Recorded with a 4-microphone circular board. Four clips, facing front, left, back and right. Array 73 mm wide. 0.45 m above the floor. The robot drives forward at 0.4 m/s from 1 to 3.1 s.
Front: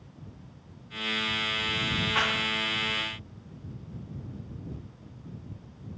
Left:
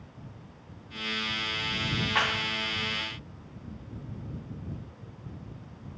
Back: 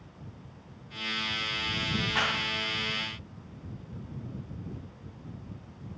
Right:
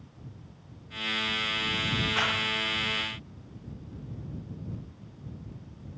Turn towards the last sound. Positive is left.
turn(degrees=100)